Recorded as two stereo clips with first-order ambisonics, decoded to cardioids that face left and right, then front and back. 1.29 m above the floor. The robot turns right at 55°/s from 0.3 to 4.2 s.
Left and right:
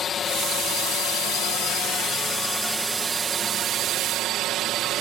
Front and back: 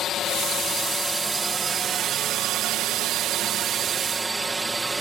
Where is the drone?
40° left; by 5.0 s 105° right.